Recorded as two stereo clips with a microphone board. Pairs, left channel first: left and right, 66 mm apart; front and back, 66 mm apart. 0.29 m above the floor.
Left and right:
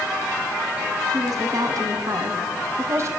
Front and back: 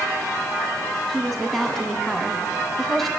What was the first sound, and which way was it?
A woman speaking, 85° right.